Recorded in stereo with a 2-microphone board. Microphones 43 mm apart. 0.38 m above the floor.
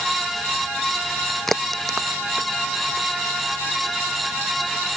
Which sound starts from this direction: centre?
A crack, at 1.5 s.